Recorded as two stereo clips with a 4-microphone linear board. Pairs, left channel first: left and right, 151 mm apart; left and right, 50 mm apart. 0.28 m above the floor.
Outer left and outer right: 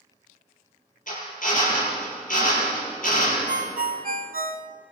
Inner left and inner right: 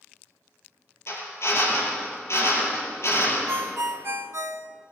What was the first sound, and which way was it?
A drill, 60° left (ahead or behind).